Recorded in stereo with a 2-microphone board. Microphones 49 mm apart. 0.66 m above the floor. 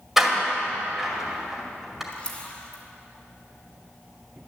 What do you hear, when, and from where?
0.2 s a door slam: 10° right (ahead or behind), 2 m
2.1 s a camera shutter: 25° left (ahead or behind), 2 m